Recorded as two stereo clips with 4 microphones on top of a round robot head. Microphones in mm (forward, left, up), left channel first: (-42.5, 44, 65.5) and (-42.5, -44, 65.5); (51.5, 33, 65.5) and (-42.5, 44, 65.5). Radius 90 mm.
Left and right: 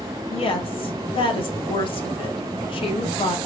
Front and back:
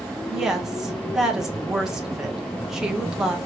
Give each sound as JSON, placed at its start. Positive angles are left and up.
{"t": 0.3, "sound": "a woman speaking", "azimuth_deg": 90, "distance_m": 1.0}